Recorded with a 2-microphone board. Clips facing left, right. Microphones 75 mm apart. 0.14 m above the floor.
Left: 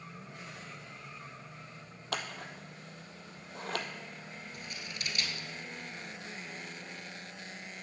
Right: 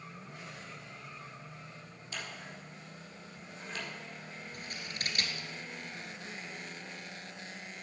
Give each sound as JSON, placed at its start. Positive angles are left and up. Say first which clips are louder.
{"t": 2.1, "sound": "scissors", "louder": "left 5 dB", "side_deg": 75, "distance_m": 0.8}
{"t": 4.5, "sound": "scissors", "louder": "right 2 dB", "side_deg": -50, "distance_m": 1.2}